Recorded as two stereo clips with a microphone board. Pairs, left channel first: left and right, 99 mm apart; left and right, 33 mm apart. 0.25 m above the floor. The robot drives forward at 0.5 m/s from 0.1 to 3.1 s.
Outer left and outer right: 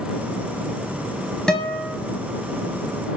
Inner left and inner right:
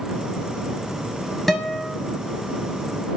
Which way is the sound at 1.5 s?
10° left (ahead or behind).